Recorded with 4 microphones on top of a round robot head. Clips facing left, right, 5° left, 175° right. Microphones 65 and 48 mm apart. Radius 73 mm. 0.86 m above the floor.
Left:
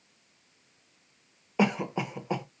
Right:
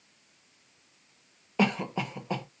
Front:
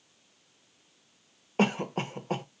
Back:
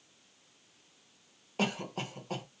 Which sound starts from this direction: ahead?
A cough, at 1.6 s.